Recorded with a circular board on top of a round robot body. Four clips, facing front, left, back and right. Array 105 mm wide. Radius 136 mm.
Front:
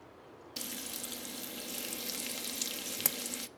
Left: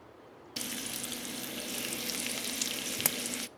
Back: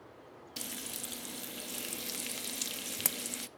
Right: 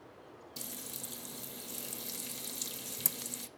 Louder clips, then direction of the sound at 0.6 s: Left 9 dB, even; 95° left.